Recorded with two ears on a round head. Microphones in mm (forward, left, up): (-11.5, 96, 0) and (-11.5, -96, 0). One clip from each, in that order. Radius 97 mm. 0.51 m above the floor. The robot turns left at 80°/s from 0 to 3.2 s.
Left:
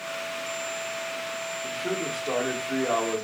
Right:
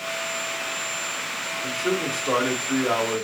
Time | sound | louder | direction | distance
1.6 | a man speaking | right 6 dB | 15° right (ahead or behind) | 0.8 m